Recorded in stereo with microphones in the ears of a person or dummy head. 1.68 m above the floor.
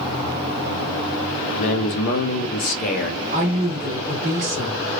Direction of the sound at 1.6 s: 45° left (ahead or behind).